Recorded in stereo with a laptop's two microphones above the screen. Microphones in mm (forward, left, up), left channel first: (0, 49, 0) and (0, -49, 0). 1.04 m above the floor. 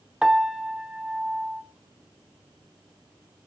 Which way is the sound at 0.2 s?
5° right (ahead or behind).